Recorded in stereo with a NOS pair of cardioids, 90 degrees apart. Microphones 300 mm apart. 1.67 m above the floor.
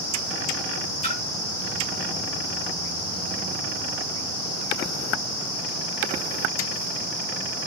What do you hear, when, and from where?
1.0 s a splash: 20° left, 3 m